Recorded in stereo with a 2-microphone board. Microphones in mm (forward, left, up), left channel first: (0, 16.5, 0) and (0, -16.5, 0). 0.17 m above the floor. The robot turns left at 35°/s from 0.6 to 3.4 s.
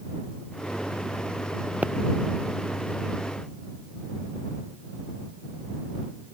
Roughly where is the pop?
Right.